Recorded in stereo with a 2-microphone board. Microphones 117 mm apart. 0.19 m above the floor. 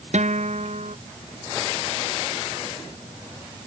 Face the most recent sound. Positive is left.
turn(degrees=-75)  # may be behind; listen again after turning